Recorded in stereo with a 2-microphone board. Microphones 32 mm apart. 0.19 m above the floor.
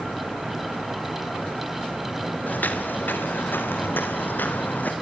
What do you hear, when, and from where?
2.5 s footsteps: 60° left (ahead or behind), 3.5 m